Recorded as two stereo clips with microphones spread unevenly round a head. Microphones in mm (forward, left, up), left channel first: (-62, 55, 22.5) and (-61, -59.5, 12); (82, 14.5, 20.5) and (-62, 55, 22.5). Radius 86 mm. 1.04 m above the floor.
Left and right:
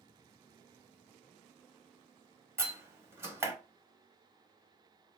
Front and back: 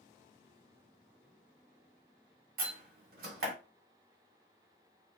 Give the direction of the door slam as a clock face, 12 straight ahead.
5 o'clock.